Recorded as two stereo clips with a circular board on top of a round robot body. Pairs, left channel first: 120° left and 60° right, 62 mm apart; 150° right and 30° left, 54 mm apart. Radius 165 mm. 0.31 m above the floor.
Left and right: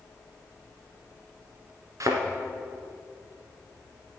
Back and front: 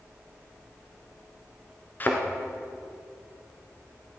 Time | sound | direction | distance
2.0 | a thud | 95° right | 1.6 m